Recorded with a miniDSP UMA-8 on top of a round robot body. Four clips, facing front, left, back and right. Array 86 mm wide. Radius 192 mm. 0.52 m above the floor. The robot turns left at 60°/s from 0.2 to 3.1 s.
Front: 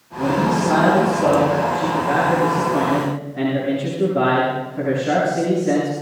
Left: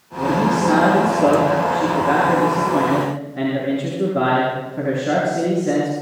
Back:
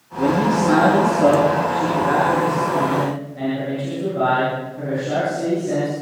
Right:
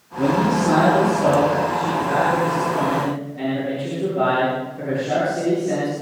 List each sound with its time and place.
0.2 s a man speaking: 125° right, 8.5 m; by 5.9 s 60° left, 8.5 m